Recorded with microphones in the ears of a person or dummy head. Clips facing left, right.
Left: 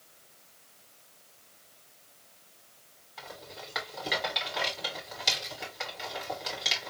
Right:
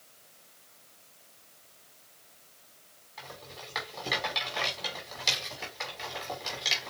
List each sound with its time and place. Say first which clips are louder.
3.2 s a rattle: left 1 dB; 5° left (ahead or behind), 2 m